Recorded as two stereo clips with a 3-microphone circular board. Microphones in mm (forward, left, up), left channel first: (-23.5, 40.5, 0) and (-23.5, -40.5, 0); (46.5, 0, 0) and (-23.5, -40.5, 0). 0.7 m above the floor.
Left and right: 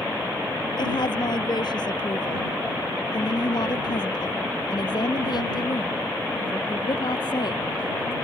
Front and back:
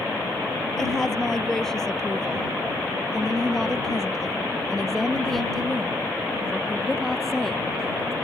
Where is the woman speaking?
115° left; by 8.1 s 120° left.